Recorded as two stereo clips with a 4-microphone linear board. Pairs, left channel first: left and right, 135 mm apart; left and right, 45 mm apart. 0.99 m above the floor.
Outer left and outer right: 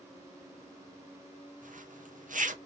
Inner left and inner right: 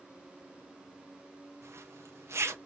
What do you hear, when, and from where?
1.6 s a zipper: 75° right (ahead or behind), 0.7 m